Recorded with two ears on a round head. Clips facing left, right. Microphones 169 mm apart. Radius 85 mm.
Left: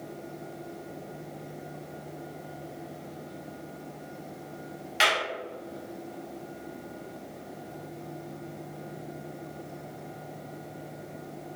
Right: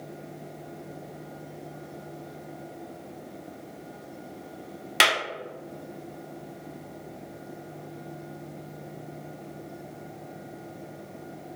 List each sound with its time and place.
5.0 s a clap: 60° right (ahead or behind), 0.7 m